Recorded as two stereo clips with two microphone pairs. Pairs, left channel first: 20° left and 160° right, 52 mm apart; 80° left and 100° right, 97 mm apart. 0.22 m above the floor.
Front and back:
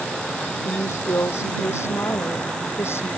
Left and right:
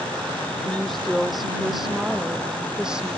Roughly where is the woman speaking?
Ahead.